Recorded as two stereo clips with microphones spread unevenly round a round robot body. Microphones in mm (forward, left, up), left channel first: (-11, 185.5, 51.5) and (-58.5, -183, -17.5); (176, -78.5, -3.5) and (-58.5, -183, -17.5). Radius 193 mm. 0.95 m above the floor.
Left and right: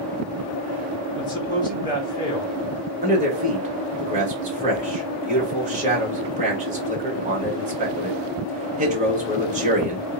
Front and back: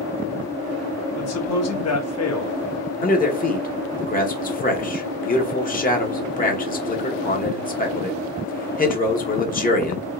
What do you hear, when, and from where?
1.1 s a man speaking: straight ahead, 1.5 m
3.0 s a man speaking: 35° right, 1.3 m